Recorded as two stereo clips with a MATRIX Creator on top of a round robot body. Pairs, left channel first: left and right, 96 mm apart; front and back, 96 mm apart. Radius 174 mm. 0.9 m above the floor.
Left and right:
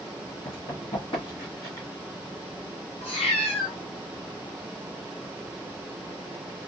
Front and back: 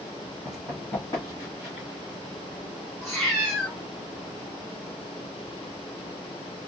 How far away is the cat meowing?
About 0.9 m.